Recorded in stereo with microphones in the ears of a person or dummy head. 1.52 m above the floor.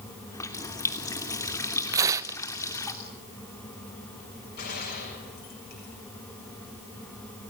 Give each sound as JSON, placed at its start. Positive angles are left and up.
{"t": 0.3, "sound": "a running tap", "side_deg": 15, "distance_m": 3.0}
{"t": 1.9, "sound": "tearing paper", "side_deg": -20, "distance_m": 0.7}
{"t": 4.6, "sound": "a gunshot", "side_deg": 50, "distance_m": 7.0}